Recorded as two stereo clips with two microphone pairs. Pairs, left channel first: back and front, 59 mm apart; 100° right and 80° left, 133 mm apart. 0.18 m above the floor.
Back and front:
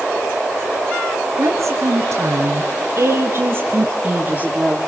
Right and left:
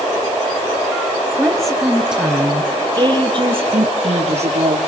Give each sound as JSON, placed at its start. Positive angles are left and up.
{"t": 1.4, "sound": "a woman speaking", "azimuth_deg": -20, "distance_m": 3.5}